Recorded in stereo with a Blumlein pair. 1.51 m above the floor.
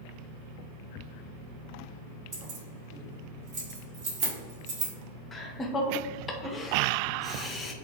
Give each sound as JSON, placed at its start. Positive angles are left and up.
{"t": 2.3, "sound": "keys jangling", "azimuth_deg": -45, "distance_m": 1.4}
{"t": 5.3, "sound": "laughter", "azimuth_deg": 20, "distance_m": 0.6}